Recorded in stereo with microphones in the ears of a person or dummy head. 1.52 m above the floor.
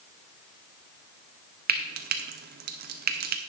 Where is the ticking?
I don't hear ticking.